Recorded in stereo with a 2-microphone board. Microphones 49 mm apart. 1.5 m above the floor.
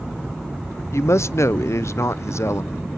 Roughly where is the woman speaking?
Left.